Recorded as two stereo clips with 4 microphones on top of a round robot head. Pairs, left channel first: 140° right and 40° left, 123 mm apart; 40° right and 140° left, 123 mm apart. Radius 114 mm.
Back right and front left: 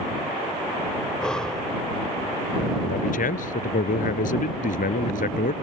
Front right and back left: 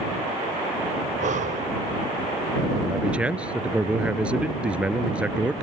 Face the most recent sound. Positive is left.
turn(degrees=-140)